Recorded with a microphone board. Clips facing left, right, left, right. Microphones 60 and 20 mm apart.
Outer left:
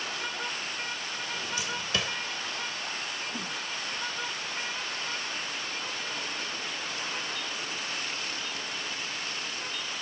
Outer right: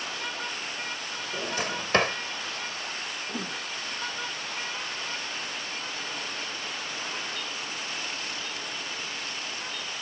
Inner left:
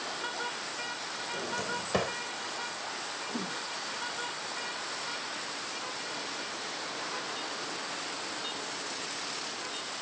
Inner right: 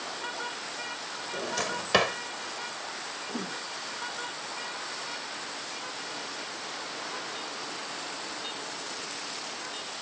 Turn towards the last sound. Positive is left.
turn(degrees=-45)  # may be behind; listen again after turning